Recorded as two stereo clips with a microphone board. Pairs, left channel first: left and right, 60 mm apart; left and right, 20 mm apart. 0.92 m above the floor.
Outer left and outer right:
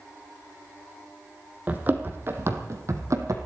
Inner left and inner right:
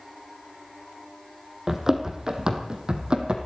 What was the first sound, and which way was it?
Running footsteps, 25° right (ahead or behind).